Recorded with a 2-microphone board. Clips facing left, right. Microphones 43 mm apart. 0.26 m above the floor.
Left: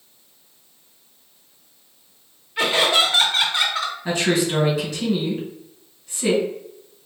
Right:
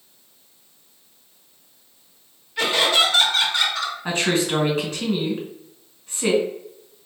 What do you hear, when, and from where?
2.6 s laughter: 15° left (ahead or behind), 1.8 m
4.0 s a woman speaking: 45° right (ahead or behind), 1.9 m